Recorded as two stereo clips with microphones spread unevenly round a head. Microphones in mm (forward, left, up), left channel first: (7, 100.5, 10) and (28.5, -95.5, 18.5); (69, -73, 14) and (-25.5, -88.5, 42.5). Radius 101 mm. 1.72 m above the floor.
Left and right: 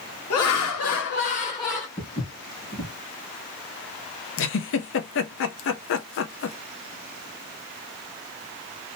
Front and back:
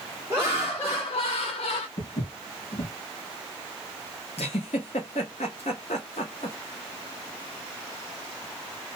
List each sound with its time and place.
0.3 s laughter: 120° left, 1.1 m; by 1.9 s 15° left, 1.2 m
2.0 s footsteps: 30° left, 2.5 m
4.4 s a giggle: 75° left, 0.6 m